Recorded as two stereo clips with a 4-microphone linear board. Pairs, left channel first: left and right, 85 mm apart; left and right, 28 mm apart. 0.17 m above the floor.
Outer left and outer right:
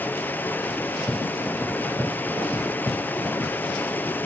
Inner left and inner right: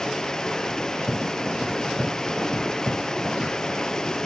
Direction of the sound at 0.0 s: 20° left (ahead or behind).